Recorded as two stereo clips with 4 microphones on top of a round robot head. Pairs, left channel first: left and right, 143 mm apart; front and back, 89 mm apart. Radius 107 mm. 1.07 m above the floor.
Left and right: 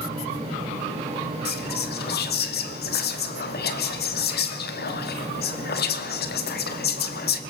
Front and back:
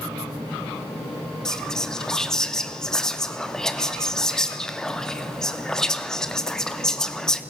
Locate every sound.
1.4 s whispering: 85° left, 2.5 m